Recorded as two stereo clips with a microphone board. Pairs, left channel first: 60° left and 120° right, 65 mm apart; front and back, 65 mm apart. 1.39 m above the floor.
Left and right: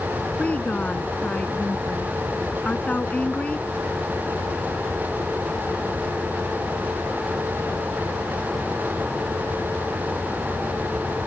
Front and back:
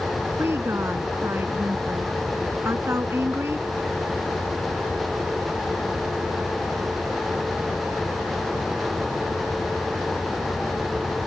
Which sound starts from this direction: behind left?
A woman speaking, at 0.4 s.